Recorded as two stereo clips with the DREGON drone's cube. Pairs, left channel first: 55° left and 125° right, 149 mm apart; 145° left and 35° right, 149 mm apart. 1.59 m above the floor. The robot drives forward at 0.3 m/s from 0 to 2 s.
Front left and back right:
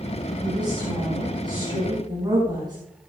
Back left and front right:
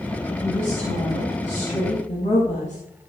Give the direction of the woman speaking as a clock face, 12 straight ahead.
6 o'clock.